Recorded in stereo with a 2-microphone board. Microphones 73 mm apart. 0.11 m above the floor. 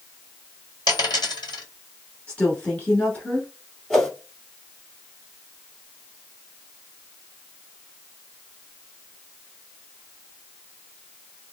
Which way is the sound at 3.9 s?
5° left (ahead or behind).